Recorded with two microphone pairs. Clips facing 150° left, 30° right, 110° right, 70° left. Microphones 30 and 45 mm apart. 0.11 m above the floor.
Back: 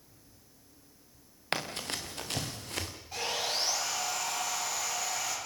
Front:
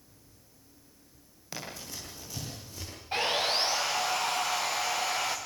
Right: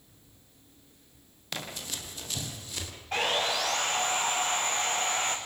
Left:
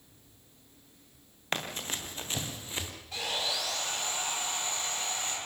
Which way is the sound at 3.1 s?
70° right.